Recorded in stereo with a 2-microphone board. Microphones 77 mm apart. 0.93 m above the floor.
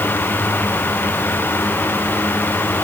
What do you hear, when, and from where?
Only background noise.